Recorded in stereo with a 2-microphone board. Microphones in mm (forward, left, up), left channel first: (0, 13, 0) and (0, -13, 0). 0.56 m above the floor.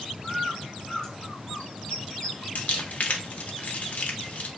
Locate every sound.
0.2 s a bird: 30° left (ahead or behind), 1.6 m
2.5 s crumpling: 65° left (ahead or behind), 0.5 m